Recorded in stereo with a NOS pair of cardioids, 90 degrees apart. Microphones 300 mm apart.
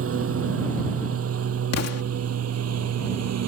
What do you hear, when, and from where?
0.0 s a lawn mower: 50° right; by 3.5 s 55° right
1.7 s an explosion: 60° left